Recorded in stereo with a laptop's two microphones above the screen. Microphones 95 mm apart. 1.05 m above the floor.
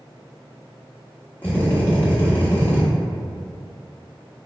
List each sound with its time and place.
1.4 s a drill: 15° left (ahead or behind), 0.9 m